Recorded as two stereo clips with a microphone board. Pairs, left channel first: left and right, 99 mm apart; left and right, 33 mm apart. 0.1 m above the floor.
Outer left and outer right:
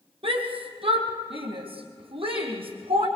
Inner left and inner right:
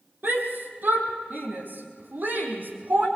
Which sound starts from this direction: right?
A shout, at 0.2 s.